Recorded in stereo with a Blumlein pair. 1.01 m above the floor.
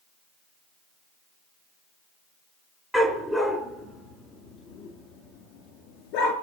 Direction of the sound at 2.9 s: 5° right.